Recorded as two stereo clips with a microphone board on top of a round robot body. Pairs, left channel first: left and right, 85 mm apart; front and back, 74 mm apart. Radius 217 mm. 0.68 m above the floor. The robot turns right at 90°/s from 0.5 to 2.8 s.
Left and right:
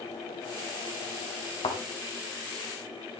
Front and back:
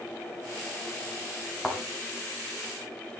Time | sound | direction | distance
1.6 | a thud | 90° left | 3 m